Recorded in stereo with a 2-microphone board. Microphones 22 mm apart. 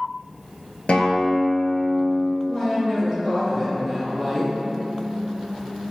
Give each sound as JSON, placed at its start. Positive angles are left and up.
{"t": 0.9, "sound": "a guitar", "side_deg": 60, "distance_m": 0.6}
{"t": 2.5, "sound": "a woman speaking", "side_deg": -15, "distance_m": 1.8}